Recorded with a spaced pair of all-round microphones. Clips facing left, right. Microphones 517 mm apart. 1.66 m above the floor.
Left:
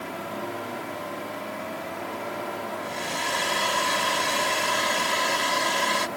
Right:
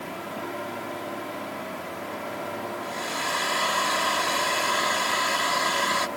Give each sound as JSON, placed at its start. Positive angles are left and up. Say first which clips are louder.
{"t": 2.8, "sound": "a hair dryer", "louder": "even", "side_deg": 50}